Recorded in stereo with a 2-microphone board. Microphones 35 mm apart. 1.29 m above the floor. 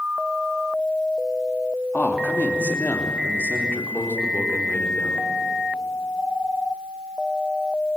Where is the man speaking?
60° left (ahead or behind), 2.5 m; by 5.2 s 85° left, 4.5 m.